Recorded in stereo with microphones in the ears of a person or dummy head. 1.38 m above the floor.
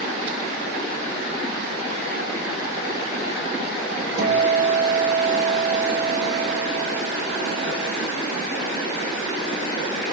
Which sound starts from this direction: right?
A guitar, at 4.2 s.